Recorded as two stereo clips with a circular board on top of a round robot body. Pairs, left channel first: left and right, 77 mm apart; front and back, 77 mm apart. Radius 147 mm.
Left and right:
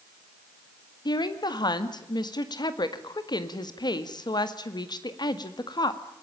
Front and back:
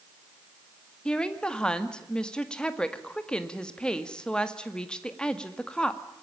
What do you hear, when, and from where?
1.1 s a woman speaking: 80° left, 2 m